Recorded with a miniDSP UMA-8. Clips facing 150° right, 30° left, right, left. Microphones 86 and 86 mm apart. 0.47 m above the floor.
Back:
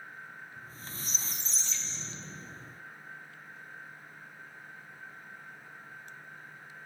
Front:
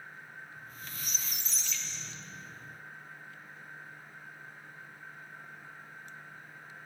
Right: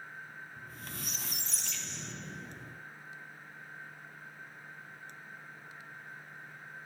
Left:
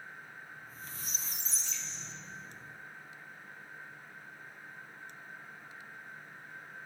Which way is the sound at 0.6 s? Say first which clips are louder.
Even, right 2 dB; 95° right.